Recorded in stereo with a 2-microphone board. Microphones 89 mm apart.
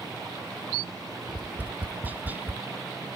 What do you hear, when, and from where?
1.3 s tapping: 20° right (ahead or behind)